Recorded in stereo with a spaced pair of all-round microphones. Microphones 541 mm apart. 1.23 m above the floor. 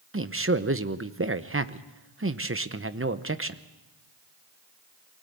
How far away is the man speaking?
About 0.8 m.